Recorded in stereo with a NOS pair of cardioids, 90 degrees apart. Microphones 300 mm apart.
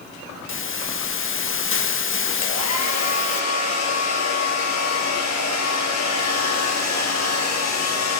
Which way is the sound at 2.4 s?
60° left.